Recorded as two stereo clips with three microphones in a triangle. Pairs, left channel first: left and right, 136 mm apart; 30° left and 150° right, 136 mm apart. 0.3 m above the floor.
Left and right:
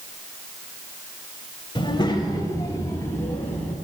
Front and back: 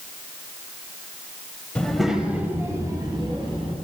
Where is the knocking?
I don't hear knocking.